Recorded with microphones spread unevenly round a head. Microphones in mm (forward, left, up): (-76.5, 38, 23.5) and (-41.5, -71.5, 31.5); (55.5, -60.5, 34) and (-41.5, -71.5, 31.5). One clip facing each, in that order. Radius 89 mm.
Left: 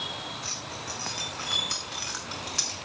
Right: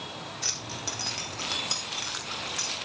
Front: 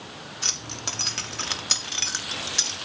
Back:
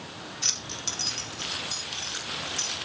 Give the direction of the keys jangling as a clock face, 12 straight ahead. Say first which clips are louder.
Even, front 3 dB; 1 o'clock.